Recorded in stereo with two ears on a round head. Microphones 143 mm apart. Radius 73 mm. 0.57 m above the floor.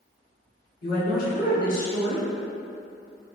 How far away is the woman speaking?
About 1.3 m.